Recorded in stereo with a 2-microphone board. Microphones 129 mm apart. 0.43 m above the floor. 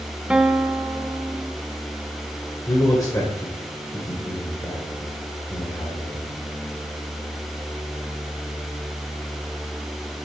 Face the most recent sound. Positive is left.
turn(degrees=30)  # may be behind; listen again after turning